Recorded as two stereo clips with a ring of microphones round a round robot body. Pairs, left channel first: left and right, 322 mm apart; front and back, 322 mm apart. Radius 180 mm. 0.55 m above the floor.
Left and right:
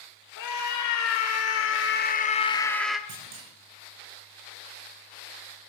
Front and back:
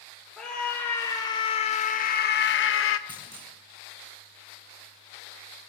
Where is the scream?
90° left, 1.6 m; by 3.0 s 5° right, 1.1 m.